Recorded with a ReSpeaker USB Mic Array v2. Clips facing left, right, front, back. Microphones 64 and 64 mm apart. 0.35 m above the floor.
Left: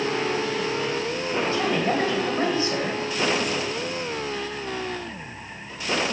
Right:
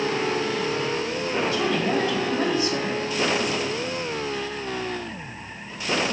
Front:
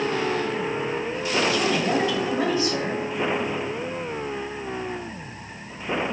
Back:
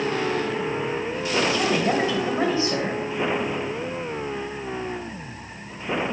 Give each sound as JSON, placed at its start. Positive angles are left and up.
{"t": 1.5, "sound": "a woman speaking", "azimuth_deg": 130, "distance_m": 2.0}